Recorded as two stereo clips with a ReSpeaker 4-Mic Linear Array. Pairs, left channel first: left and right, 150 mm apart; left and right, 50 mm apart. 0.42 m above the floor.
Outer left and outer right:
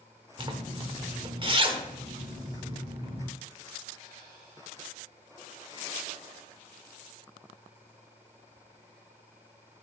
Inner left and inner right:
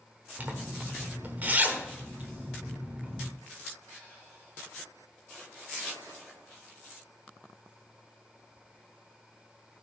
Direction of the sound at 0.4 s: 35° right (ahead or behind).